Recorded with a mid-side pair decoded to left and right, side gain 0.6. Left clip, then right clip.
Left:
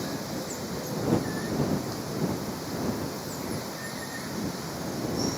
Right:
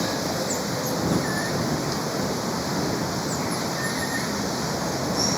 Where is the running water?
45° right.